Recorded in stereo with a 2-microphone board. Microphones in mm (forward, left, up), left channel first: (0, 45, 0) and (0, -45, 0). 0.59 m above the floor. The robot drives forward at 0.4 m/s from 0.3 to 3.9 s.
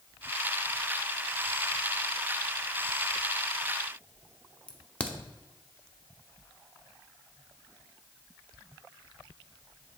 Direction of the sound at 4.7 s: 10° left (ahead or behind).